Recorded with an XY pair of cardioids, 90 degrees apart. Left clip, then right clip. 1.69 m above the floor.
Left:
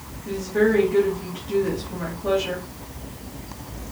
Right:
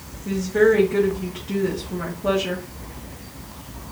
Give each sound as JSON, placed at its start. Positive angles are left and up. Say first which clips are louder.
{"t": 0.2, "sound": "a woman speaking", "louder": "right 3 dB", "azimuth_deg": -35, "distance_m": 1.9}